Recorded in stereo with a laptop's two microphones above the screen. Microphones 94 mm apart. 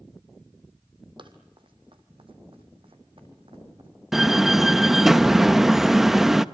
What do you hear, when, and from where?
1.2 s running footsteps: 65° right (ahead or behind), 2.5 m; by 3.9 s 75° right (ahead or behind), 3.5 m
4.1 s a door slam: 5° right (ahead or behind), 0.7 m